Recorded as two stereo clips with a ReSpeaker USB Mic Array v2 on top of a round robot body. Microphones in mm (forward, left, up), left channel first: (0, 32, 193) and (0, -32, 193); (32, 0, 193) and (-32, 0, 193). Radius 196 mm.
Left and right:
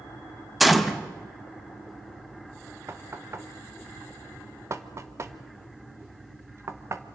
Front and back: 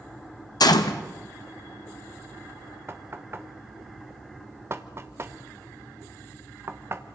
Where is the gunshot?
Straight ahead, 1.3 m.